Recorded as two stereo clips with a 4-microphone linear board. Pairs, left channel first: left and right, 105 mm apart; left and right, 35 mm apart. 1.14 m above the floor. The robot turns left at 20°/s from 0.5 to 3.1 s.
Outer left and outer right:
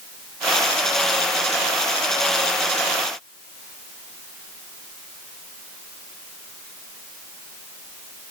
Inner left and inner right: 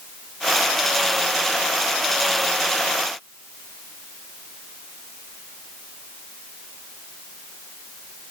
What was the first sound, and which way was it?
Only background noise.